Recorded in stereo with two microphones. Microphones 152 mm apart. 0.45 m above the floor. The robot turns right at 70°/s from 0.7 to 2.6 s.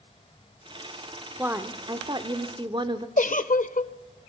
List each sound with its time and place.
1.4 s a woman speaking: 160° right, 1.0 m; by 3.1 s 75° right, 1.0 m
3.2 s a giggle: 60° left (ahead or behind), 0.6 m